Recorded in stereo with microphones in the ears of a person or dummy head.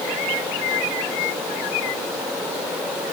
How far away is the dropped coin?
I don't hear a dropped coin.